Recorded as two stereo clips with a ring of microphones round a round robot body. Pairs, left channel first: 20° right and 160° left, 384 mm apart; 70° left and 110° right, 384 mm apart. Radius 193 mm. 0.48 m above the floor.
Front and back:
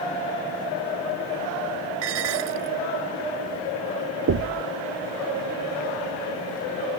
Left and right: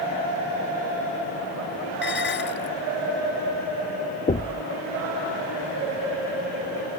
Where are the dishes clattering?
130° left.